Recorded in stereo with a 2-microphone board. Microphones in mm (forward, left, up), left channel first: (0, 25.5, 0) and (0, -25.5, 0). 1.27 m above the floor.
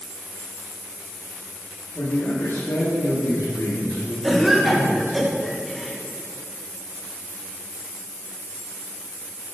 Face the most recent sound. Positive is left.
turn(degrees=-5)  # may be behind; listen again after turning